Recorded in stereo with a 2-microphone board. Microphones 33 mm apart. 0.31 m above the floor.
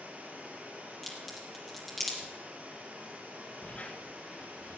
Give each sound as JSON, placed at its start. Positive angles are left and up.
{"t": 0.0, "sound": "running water", "side_deg": -65, "distance_m": 7.0}
{"t": 1.0, "sound": "a crack", "side_deg": 5, "distance_m": 6.0}
{"t": 3.6, "sound": "a squeak", "side_deg": 50, "distance_m": 3.0}